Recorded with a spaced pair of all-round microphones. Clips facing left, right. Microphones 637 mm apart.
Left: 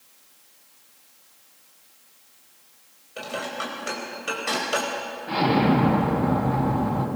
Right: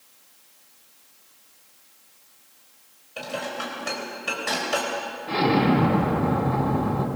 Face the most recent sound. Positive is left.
turn(degrees=0)  # may be behind; listen again after turning